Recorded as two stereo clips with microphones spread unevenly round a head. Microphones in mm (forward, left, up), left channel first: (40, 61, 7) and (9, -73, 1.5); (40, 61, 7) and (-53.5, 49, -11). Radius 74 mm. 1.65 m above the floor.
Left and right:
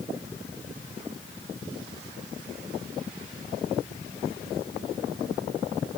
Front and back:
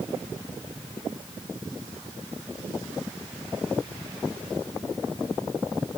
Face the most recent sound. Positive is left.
No sound to turn to.